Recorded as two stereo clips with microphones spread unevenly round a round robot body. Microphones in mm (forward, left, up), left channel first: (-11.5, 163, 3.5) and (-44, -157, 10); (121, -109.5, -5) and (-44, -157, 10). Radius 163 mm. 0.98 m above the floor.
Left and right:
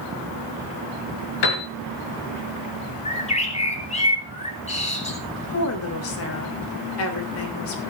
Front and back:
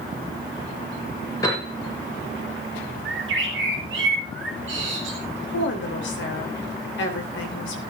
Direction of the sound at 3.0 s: 155° left.